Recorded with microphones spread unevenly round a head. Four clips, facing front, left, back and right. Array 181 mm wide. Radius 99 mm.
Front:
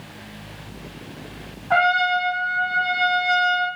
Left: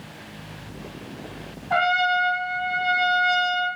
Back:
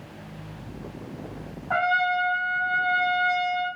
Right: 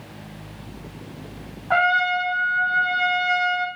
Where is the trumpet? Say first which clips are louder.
Right 1 dB, front 4 dB; 55° right, 1.8 m.